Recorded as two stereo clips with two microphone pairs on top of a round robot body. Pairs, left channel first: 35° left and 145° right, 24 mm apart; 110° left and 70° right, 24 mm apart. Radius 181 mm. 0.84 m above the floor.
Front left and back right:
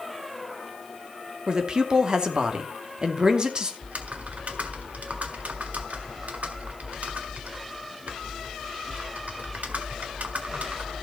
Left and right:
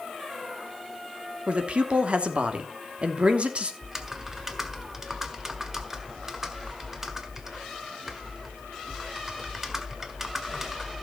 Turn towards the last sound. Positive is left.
turn(degrees=-150)